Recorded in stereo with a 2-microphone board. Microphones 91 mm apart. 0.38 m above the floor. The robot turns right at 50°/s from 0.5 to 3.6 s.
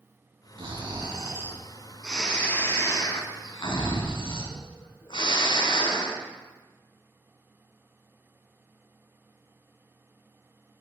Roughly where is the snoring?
Right.